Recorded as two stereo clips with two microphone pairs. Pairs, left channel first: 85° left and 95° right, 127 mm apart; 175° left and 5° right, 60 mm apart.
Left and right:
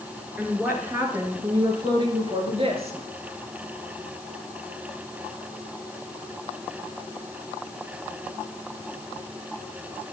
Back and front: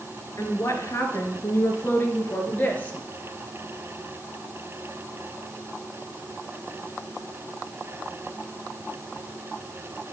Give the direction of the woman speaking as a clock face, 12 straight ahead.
6 o'clock.